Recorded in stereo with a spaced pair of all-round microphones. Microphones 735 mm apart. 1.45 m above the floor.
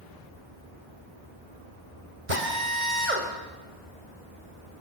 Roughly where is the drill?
Right.